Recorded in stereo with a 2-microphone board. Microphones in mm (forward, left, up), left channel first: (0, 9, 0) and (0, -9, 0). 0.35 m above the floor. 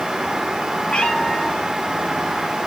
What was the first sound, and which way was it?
A cat meowing, 75° left (ahead or behind).